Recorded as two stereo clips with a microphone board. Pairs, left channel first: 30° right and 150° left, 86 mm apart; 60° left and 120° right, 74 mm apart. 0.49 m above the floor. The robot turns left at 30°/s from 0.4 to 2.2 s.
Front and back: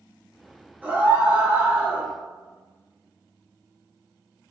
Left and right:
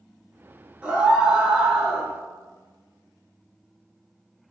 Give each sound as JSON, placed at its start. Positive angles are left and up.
{"t": 0.8, "sound": "a scream", "azimuth_deg": -175, "distance_m": 1.0}